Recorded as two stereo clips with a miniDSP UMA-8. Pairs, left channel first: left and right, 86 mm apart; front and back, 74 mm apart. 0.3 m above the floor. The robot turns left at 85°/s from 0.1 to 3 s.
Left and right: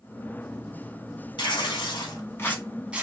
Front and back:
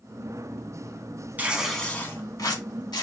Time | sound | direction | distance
1.4 | tearing paper | 115° left | 0.6 m